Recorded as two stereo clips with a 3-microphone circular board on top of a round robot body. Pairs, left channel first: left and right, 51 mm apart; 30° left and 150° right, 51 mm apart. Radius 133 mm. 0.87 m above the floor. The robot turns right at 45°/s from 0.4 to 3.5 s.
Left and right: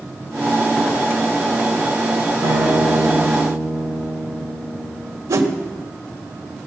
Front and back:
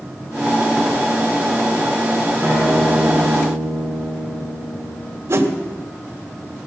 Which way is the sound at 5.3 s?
105° right.